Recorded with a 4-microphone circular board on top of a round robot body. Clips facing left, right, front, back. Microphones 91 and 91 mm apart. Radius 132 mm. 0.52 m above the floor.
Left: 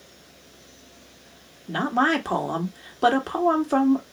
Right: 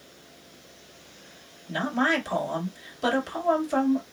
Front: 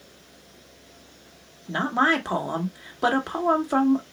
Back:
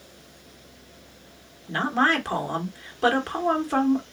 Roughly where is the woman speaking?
Ahead left.